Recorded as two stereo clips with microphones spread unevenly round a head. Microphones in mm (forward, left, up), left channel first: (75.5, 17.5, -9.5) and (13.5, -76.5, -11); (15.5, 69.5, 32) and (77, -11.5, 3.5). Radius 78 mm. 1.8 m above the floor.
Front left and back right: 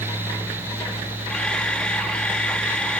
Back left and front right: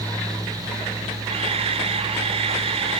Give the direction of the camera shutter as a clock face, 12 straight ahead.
1 o'clock.